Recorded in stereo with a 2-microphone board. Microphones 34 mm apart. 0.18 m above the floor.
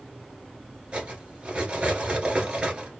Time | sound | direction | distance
0.9 | cutlery clinking | 30° right (ahead or behind) | 1.4 m